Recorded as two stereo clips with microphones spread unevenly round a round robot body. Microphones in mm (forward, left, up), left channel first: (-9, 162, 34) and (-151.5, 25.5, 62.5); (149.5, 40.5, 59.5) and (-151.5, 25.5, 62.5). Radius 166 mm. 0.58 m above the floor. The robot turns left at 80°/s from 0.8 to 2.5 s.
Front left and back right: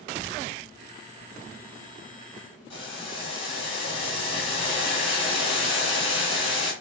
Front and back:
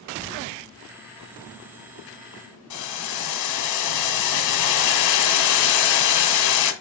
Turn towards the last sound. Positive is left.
turn(degrees=-25)